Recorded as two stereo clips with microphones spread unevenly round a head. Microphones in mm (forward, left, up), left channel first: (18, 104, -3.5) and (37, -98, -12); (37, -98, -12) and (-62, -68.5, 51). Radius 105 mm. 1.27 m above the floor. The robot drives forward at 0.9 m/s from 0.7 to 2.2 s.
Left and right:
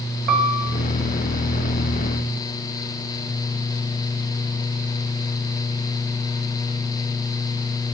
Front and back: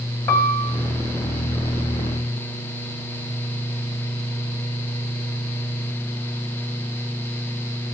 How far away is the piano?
About 1.4 m.